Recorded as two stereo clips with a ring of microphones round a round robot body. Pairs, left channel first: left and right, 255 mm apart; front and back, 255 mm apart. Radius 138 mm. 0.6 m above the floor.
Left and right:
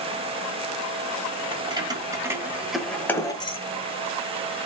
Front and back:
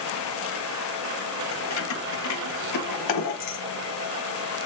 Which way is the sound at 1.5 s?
20° right.